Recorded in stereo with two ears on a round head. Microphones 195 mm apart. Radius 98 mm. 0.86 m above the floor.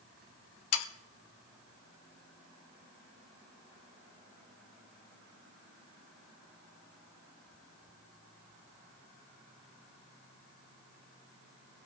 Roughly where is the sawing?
Left.